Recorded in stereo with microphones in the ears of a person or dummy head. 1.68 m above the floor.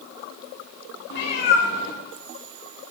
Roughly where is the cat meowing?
Left.